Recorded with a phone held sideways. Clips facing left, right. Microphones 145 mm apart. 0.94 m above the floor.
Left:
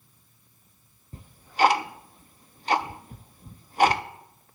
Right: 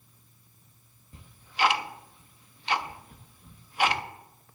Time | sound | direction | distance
1.1 | ticking | 40° left (ahead or behind) | 0.5 m